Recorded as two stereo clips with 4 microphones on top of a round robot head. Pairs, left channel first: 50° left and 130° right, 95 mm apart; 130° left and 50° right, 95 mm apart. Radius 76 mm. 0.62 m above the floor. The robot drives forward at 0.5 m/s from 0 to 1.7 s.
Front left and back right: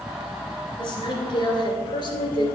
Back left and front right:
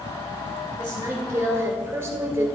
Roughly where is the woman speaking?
Ahead.